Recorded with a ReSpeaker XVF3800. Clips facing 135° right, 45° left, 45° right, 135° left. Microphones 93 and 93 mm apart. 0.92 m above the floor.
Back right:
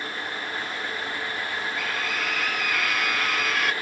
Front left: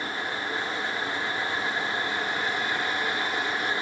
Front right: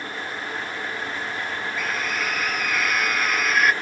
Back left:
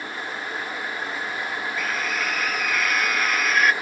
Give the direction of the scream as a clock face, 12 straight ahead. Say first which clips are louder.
Even, even; 4 o'clock.